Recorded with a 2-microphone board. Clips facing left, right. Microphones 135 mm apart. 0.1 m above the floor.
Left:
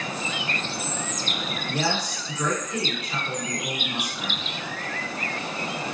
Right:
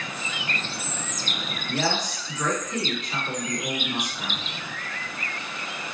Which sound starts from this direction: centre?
A woman speaking, at 1.7 s.